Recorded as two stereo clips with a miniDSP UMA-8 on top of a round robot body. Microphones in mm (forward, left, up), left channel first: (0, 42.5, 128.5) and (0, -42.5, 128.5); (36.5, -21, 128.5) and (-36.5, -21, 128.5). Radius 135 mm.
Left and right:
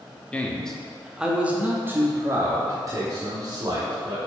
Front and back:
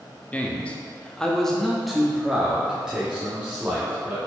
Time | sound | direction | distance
0.3 | a man speaking | 40° left | 1.1 m